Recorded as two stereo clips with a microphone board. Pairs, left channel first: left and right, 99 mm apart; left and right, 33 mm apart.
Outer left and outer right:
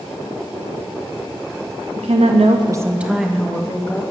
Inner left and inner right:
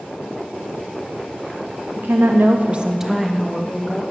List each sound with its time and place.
2.0 s a woman speaking: 70° right (ahead or behind), 0.8 m; by 4.0 s 15° left (ahead or behind), 2.0 m